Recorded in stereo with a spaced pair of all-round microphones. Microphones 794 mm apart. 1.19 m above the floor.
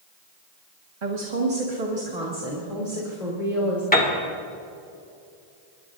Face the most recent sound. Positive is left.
turn(degrees=10)  # may be behind; listen again after turning